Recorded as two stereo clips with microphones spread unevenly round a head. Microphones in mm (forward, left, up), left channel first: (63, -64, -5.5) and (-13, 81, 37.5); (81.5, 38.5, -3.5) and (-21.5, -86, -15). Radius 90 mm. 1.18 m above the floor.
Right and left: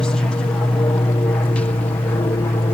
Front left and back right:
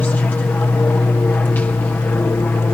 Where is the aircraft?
20° right.